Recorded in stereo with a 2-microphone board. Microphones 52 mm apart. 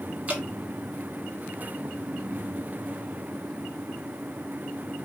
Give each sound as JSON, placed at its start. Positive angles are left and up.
{"t": 0.3, "sound": "dripping", "side_deg": -30, "distance_m": 1.4}